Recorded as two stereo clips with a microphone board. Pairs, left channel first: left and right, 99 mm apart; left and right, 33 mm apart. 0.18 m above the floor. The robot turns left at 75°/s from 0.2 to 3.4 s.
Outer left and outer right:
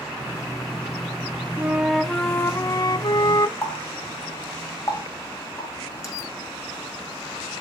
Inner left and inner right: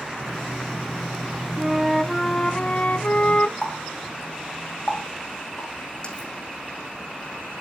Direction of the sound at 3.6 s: 30° left (ahead or behind).